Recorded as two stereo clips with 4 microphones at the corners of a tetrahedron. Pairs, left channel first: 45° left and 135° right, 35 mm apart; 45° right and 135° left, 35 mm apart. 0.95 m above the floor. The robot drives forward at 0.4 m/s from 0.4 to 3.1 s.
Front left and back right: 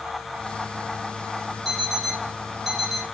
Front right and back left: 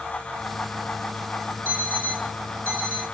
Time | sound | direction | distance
1.6 | an alarm clock | 140° left | 1.9 m